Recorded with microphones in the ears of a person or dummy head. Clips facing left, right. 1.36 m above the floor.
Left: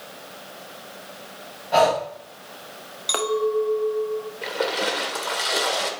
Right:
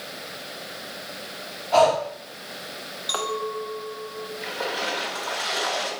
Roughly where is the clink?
Left.